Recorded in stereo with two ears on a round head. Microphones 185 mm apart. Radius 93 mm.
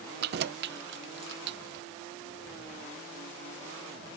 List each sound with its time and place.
0.2 s keys jangling: 50° right (ahead or behind); by 1.8 s 60° right (ahead or behind)